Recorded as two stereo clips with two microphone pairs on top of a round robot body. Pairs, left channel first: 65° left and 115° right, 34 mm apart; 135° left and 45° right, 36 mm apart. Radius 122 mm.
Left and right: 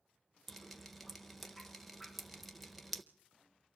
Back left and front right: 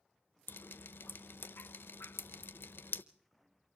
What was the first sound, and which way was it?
Dripping, 155° left.